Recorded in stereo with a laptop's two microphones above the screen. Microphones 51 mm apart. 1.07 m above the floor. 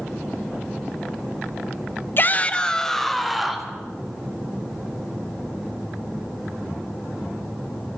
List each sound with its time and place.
2.2 s a shout: 45° left (ahead or behind), 0.7 m; by 3.7 s 5° right (ahead or behind), 1.8 m